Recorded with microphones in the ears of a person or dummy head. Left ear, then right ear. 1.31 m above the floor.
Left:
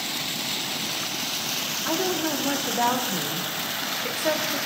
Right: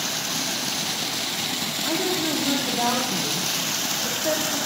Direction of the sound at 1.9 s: 85° left.